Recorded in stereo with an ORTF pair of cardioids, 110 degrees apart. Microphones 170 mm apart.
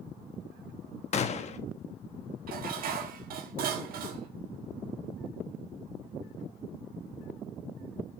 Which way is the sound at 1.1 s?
45° left.